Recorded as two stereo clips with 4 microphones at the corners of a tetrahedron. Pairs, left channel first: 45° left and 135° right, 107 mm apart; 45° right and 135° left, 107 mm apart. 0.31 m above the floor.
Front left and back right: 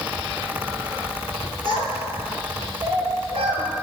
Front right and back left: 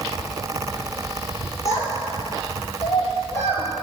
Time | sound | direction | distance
1.6 | a child speaking | 105° right | 4.5 m